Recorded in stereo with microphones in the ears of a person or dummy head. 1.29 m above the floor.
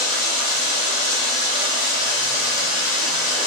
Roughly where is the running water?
Left.